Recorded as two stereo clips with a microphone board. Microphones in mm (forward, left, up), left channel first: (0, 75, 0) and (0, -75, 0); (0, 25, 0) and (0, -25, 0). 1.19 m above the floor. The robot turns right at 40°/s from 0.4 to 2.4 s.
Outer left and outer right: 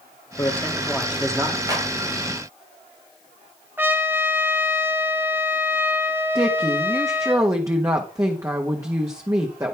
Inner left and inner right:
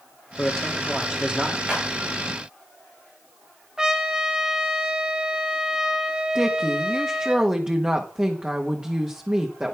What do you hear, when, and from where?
0.4 s a man speaking: 160° left, 2.5 m; by 1.6 s 150° right, 2.5 m
1.7 s a clap: 25° right (ahead or behind), 6.5 m; by 1.9 s 15° right (ahead or behind), 6.5 m
3.8 s a trumpet: 15° right (ahead or behind), 1.5 m
6.3 s a woman speaking: 20° right (ahead or behind), 1.5 m